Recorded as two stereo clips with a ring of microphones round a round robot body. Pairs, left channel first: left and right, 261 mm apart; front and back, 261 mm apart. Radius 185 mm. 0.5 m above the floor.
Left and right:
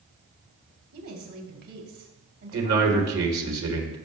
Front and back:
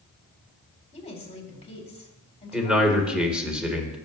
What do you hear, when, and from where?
0.9 s a woman speaking: 65° right, 3 m
2.5 s a man speaking: 95° right, 2 m